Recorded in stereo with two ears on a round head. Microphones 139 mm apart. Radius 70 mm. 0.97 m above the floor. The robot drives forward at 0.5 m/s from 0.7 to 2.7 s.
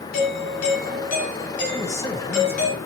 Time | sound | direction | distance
0.1 | a doorbell | 65° left (ahead or behind) | 8.5 m
1.7 | a man speaking | 20° left (ahead or behind) | 3.5 m